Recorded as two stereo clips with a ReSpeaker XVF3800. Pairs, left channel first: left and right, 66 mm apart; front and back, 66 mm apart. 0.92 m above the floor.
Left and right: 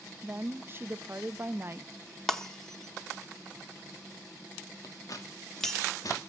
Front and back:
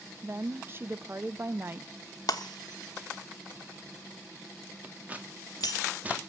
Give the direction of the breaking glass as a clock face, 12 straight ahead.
12 o'clock.